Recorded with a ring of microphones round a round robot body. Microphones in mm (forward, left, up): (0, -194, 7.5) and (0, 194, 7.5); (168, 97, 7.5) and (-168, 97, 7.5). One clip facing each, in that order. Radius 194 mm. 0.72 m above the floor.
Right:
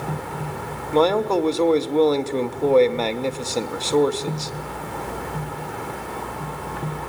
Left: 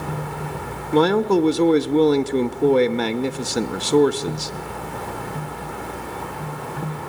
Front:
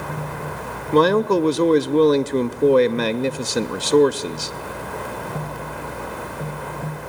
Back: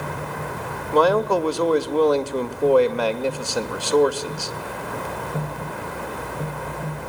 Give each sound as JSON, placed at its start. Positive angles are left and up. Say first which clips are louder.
{"t": 0.9, "sound": "a man speaking", "louder": "left 2 dB, front 3 dB", "azimuth_deg": 45, "distance_m": 0.6}